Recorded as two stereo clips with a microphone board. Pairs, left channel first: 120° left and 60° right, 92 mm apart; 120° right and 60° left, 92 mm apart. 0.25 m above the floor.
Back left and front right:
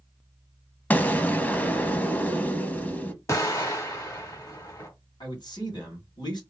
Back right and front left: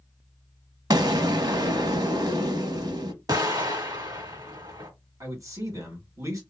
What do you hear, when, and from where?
0.9 s an explosion: 55° left, 0.8 m
3.3 s an explosion: 80° left, 1.7 m
5.2 s a man speaking: 105° left, 2.5 m